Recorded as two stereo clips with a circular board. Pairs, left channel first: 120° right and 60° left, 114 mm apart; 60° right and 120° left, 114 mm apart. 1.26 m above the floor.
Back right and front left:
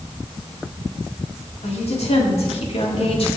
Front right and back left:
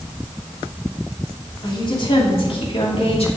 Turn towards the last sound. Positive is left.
turn(degrees=-90)